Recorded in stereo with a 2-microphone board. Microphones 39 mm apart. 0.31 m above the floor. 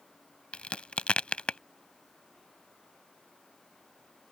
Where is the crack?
30° left (ahead or behind).